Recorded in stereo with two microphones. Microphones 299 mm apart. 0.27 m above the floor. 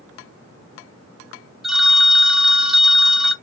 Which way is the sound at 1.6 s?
Centre (ahead or behind).